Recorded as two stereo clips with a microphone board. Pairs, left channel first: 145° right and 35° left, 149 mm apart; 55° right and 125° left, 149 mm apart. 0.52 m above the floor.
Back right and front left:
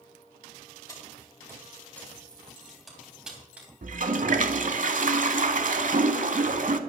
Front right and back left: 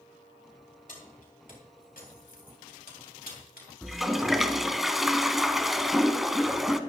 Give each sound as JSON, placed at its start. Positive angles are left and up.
{"t": 0.9, "sound": "keys jangling", "azimuth_deg": -80, "distance_m": 3.5}
{"t": 3.8, "sound": "a toilet flushing", "azimuth_deg": 35, "distance_m": 0.7}